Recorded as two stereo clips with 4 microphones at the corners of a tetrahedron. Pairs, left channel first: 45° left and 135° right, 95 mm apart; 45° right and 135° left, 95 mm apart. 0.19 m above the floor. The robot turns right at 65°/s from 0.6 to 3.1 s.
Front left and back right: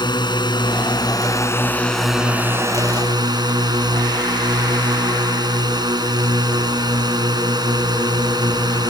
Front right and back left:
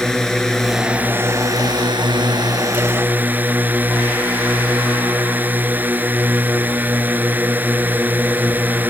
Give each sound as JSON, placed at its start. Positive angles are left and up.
{"t": 0.0, "sound": "a drone", "azimuth_deg": 40}